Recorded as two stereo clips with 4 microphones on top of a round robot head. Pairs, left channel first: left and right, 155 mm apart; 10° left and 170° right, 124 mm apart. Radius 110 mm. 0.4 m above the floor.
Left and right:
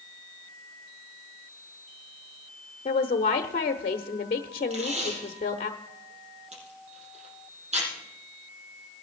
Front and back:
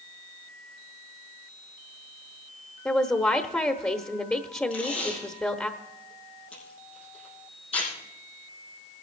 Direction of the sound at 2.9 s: 80° left.